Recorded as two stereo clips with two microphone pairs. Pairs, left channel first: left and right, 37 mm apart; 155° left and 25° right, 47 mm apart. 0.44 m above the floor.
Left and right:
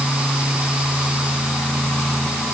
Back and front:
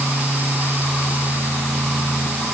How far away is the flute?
I don't hear a flute.